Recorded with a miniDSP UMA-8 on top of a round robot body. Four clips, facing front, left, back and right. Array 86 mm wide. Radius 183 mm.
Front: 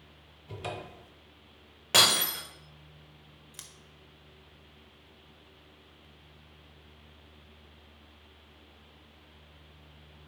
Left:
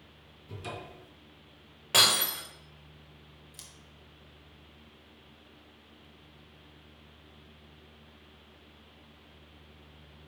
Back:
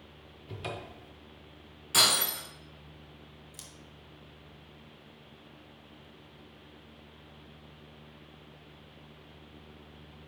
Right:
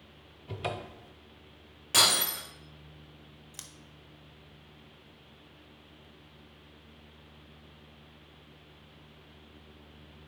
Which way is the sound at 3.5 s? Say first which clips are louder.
Right 3 dB, back 2 dB; 55° right.